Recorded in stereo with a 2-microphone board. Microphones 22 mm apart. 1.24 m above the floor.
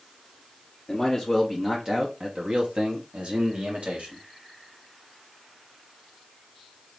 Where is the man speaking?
15° left (ahead or behind), 1.2 m; by 4.2 s 75° right (ahead or behind), 2 m.